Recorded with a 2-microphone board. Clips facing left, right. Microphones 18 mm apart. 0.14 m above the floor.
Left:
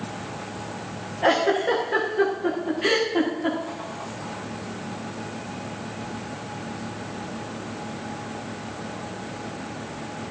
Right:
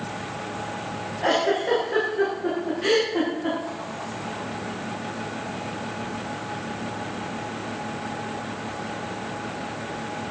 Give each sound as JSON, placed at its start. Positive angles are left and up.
{"t": 1.2, "sound": "a giggle", "side_deg": 15, "distance_m": 7.5}